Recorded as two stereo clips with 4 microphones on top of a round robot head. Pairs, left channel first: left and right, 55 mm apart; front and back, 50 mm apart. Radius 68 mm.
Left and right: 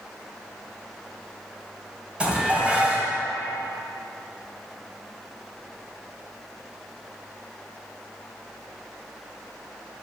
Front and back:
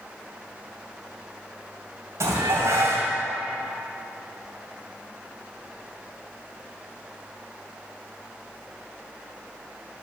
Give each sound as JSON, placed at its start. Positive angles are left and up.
{"t": 2.2, "sound": "dishes clattering", "azimuth_deg": -160, "distance_m": 2.5}